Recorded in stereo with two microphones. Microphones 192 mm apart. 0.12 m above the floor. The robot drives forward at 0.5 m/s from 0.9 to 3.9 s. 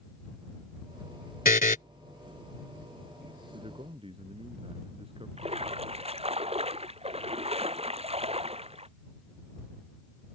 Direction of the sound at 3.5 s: 30° right (ahead or behind).